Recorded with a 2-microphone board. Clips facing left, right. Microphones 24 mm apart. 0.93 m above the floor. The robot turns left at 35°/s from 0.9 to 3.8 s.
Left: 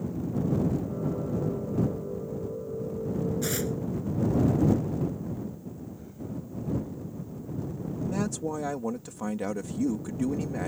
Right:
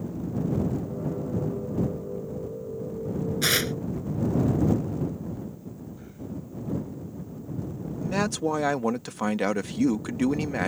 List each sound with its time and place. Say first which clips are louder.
3.4 s tearing paper: right 6 dB; 65° right (ahead or behind); by 3.7 s 50° right (ahead or behind)
6.0 s breathing: even; 25° right (ahead or behind)
8.0 s a man speaking: right 5 dB; 65° right (ahead or behind)